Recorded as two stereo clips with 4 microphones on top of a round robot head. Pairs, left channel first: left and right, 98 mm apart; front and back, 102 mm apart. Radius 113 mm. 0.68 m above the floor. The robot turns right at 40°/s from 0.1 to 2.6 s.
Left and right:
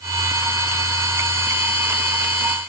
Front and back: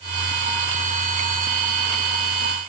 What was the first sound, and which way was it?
Only background noise.